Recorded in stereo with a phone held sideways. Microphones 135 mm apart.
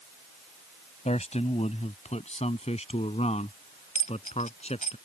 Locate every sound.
1.1 s a man speaking: 60° left (ahead or behind); by 5.0 s 55° left (ahead or behind)
4.0 s a dropped coin: 75° left (ahead or behind)